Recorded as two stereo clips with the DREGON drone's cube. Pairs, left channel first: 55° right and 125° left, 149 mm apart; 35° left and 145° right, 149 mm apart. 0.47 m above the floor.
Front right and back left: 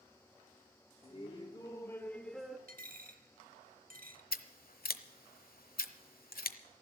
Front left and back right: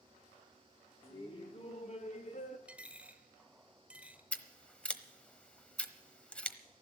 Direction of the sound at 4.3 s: 50° right.